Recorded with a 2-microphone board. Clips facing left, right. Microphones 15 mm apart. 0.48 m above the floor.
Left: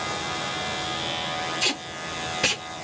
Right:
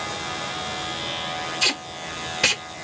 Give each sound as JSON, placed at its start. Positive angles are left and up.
{"t": 1.6, "sound": "tape being pulled", "side_deg": -25, "distance_m": 0.7}